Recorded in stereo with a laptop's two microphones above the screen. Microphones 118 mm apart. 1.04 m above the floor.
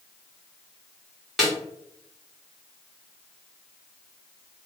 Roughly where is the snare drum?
Centre.